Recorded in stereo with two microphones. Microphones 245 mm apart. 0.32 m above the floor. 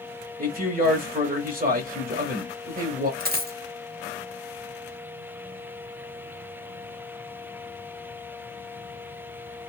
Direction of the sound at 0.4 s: 35° right (ahead or behind).